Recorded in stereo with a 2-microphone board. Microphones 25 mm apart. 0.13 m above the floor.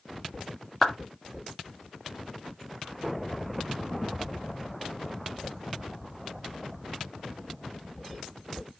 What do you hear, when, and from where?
0.8 s a clap: 15° left (ahead or behind), 1.4 m